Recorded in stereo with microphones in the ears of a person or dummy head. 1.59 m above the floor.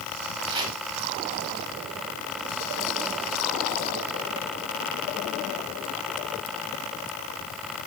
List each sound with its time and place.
0.5 s chopping: 30° right (ahead or behind), 4 m